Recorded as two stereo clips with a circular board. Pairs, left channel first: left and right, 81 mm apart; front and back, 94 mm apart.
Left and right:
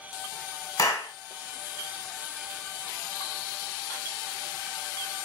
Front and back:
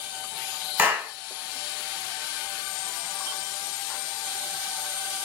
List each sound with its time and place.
0.8 s a clap: 110° left, 1.3 m